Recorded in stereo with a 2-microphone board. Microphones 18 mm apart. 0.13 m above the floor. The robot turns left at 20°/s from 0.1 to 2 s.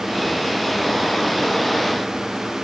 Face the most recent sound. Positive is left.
No sound to turn to.